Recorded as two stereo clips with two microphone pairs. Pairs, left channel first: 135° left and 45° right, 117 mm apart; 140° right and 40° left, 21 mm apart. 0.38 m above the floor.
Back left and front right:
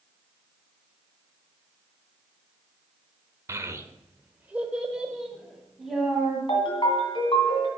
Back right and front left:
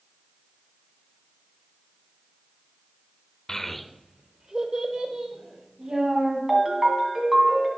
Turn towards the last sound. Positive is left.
turn(degrees=100)